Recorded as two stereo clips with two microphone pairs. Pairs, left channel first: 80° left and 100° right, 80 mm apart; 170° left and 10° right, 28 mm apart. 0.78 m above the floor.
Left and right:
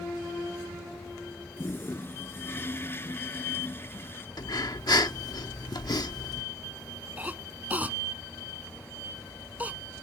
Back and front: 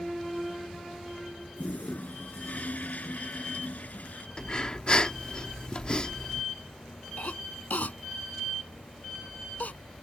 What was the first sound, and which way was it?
A toilet flushing, 145° left.